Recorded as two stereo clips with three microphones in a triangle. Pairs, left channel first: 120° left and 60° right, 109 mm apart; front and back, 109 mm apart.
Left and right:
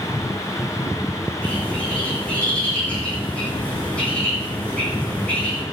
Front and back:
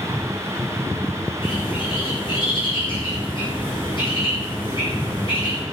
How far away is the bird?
About 8.5 m.